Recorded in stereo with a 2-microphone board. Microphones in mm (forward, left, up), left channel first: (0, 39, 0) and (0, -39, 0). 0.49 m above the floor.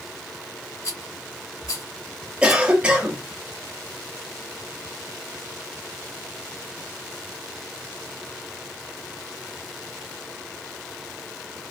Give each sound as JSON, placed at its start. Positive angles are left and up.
{"t": 0.8, "sound": "a rattle", "side_deg": 45, "distance_m": 2.5}
{"t": 2.4, "sound": "a cough", "side_deg": -15, "distance_m": 1.6}